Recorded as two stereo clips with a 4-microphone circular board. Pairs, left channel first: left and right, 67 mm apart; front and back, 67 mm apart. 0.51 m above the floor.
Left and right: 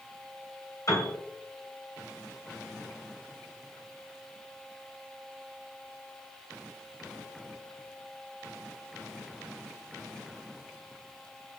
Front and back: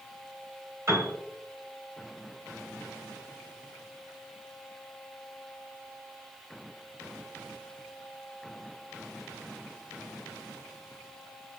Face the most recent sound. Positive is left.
turn(degrees=130)